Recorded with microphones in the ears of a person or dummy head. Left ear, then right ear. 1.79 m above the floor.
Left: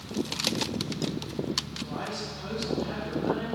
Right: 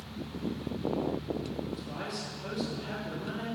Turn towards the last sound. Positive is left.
turn(degrees=-10)  # may be behind; listen again after turning